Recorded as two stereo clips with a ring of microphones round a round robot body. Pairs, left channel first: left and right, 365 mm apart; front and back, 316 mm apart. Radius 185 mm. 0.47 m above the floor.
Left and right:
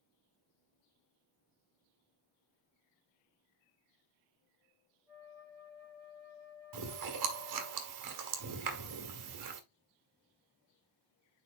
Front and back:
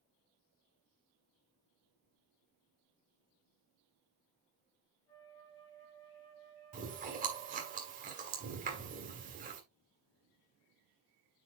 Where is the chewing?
115° right, 1.9 m.